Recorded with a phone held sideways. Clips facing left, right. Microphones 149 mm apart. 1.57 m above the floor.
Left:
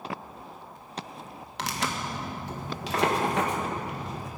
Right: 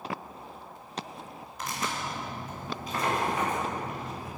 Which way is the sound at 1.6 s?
75° left (ahead or behind).